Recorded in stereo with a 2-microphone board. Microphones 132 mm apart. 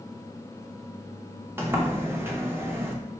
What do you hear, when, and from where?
1.6 s a sliding door: 20° right (ahead or behind), 0.6 m